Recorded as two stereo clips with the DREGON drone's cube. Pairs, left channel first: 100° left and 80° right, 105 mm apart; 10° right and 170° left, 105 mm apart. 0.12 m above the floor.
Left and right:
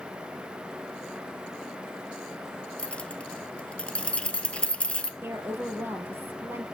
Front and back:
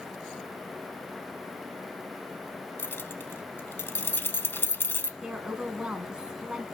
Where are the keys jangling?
35° left, 0.8 m.